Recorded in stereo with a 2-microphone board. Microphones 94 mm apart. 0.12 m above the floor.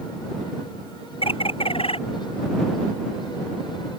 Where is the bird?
80° left.